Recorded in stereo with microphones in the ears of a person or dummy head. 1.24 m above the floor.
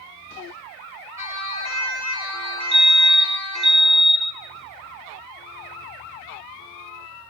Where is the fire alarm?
25° right (ahead or behind), 1.5 m.